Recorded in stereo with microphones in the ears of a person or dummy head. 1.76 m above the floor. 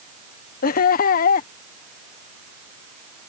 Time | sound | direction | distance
0.6 | laughter | 45° left (ahead or behind) | ?